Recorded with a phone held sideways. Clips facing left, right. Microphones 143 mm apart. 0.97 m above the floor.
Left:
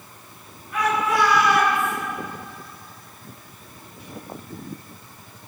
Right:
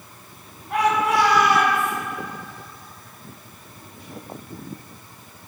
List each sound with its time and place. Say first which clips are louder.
0.7 s a shout: right 3 dB; 70° right (ahead or behind), 9 m; by 1.9 s 75° right (ahead or behind), 9 m